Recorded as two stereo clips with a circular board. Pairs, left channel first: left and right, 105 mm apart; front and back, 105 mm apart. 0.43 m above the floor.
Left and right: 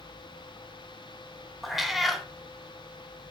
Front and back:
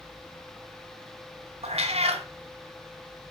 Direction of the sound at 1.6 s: Straight behind.